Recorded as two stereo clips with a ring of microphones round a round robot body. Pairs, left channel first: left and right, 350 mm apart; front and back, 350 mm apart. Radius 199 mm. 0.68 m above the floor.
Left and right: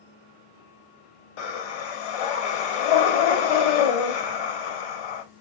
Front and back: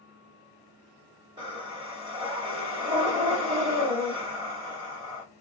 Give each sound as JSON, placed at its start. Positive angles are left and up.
{"t": 1.4, "sound": "breathing", "azimuth_deg": 100, "distance_m": 0.7}